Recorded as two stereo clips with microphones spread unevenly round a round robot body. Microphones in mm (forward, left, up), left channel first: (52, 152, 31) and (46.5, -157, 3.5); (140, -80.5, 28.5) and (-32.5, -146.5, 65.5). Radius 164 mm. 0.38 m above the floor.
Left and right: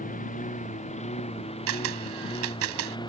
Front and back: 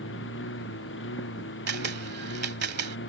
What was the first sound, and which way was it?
A lawn mower, 25° left.